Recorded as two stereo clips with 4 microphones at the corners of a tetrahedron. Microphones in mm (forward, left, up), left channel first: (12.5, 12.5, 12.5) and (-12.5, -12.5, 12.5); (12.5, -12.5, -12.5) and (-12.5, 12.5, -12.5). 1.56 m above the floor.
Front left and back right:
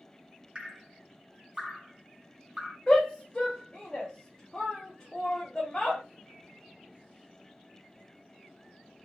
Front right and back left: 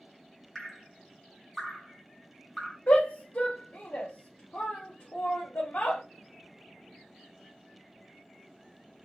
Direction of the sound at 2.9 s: 25° right.